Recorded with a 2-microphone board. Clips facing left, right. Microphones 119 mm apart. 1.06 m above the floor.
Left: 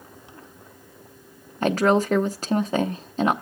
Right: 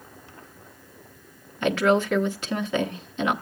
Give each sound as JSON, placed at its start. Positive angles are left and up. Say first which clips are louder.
{"t": 1.6, "sound": "a woman speaking", "louder": "left 1 dB", "side_deg": 35, "distance_m": 0.8}